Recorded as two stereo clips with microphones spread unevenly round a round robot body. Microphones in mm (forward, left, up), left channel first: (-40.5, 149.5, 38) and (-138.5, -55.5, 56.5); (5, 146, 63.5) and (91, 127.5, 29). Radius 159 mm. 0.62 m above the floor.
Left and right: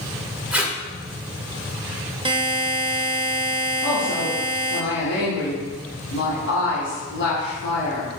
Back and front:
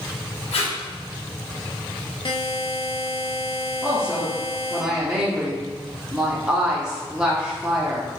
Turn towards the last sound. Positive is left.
turn(degrees=55)